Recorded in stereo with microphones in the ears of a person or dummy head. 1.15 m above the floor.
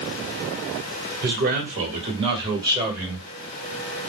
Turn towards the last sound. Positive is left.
turn(degrees=-10)  # may be behind; listen again after turning